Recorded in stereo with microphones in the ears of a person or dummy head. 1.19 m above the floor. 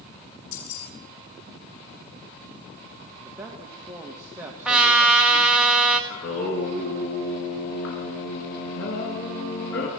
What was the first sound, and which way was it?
Keys jangling, 80° left.